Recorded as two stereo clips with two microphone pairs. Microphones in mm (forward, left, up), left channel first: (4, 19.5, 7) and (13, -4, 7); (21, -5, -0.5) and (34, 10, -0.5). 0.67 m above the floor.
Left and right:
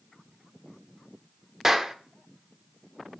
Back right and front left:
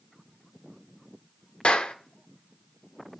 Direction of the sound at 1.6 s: 140° right.